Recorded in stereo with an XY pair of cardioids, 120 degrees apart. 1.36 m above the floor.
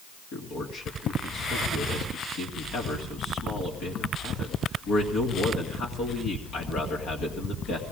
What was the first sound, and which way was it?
A man speaking, 70° left.